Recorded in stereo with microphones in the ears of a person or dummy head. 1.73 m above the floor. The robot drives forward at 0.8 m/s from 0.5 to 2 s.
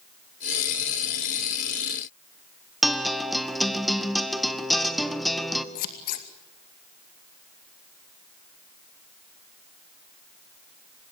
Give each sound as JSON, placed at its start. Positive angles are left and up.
{"t": 2.8, "sound": "a guitar", "side_deg": 0, "distance_m": 1.3}
{"t": 5.8, "sound": "scissors", "side_deg": 55, "distance_m": 2.0}